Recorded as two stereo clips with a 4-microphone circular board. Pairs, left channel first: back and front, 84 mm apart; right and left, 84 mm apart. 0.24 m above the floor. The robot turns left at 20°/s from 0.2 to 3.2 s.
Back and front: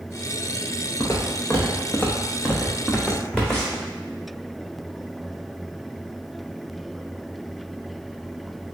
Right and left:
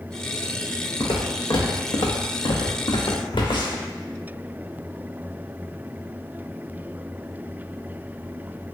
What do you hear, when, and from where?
1.0 s footsteps: 125° right, 1.0 m; by 3.9 s 85° right, 1.2 m